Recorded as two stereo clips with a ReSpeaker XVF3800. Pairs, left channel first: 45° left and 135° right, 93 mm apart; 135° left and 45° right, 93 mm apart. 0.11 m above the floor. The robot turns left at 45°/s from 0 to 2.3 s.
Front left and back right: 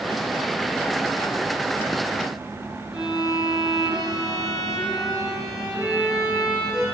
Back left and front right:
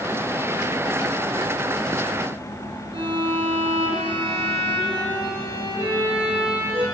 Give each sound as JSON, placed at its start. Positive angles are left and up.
{"t": 2.9, "sound": "a violin", "azimuth_deg": -50, "distance_m": 4.0}